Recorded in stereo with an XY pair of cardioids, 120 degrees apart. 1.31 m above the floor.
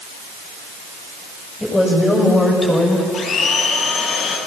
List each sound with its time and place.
1.6 s a woman speaking: 15° left, 8 m
3.1 s a blender: 55° left, 7 m